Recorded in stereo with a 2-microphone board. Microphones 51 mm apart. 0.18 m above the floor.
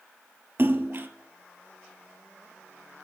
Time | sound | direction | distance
0.6 | a splash | 50° right (ahead or behind) | 1.0 m